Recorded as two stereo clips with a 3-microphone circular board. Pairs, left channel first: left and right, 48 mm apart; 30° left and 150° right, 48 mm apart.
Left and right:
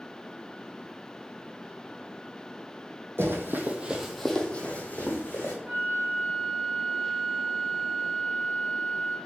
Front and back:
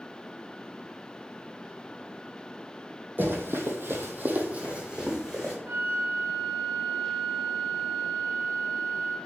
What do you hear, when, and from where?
3.2 s running footsteps: 110° right, 0.7 m; by 5.5 s 130° left, 1.2 m
5.7 s a flute: 155° right, 1.4 m